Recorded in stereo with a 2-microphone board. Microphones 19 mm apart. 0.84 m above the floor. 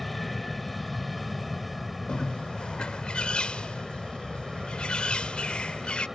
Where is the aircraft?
Centre (ahead or behind); by 6.2 s 20° right (ahead or behind).